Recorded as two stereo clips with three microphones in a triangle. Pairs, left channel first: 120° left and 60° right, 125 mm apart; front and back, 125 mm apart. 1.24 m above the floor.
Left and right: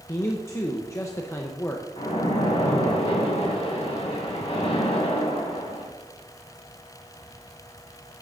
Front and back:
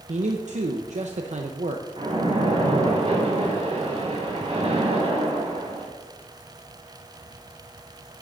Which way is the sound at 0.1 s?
175° right.